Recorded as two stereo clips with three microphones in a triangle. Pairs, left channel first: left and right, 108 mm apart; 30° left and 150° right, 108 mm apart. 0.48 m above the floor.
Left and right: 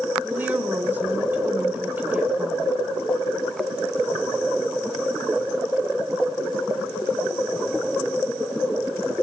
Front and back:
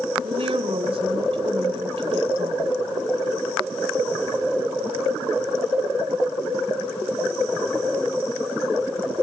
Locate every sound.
0.2 s a woman speaking: 165° right, 2 m